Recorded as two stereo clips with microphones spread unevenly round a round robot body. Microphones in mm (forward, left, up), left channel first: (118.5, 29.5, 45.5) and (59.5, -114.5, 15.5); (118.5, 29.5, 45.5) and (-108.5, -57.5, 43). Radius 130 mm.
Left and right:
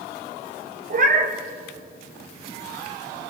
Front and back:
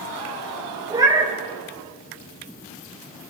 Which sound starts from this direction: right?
A cat meowing, at 0.9 s.